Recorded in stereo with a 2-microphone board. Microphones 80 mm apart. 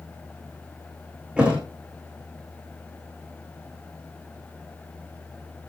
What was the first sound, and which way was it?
A thud, 15° right (ahead or behind).